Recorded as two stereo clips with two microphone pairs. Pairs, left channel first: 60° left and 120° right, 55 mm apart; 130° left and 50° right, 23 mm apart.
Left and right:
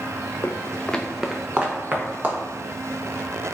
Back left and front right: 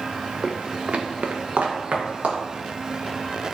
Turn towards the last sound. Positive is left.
turn(degrees=-65)